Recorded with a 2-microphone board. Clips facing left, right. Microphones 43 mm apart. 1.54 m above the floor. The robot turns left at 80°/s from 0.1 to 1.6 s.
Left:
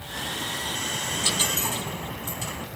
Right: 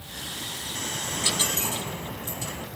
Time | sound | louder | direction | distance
1.0 | a dropped coin | even | straight behind | 3.5 m